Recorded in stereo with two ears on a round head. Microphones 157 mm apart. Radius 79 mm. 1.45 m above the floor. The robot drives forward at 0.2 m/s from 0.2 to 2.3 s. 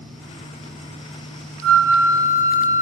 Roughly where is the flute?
Left.